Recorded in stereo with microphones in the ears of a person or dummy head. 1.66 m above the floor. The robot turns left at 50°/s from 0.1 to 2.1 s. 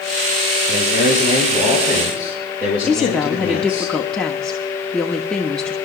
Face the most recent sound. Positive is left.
turn(degrees=5)  # may be behind; listen again after turning